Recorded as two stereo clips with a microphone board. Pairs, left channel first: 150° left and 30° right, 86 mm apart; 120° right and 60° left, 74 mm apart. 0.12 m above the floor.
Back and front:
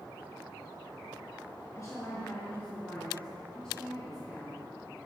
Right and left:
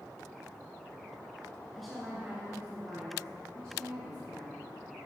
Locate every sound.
1.8 s a woman speaking: 155° left, 1.7 m; by 4.7 s 65° left, 3.5 m